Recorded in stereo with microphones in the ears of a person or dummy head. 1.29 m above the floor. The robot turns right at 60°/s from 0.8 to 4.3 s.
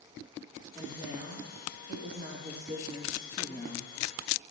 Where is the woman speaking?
145° right, 2.5 m; by 3.9 s 45° left, 2.5 m.